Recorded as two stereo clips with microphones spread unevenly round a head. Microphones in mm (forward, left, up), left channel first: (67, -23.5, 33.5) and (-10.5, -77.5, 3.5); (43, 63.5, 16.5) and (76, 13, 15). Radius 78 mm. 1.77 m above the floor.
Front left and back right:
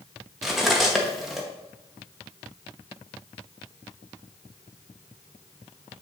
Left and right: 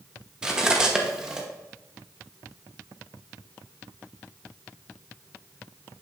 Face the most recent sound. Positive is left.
turn(degrees=0)